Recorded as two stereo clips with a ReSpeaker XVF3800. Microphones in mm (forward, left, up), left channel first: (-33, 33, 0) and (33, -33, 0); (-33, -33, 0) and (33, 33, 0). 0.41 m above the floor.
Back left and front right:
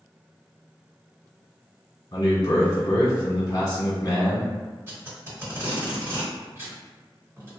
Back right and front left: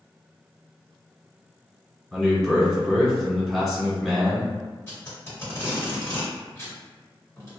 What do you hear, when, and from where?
2.1 s a man speaking: 135° left, 1.6 m
4.9 s tape being pulled: 90° right, 1.6 m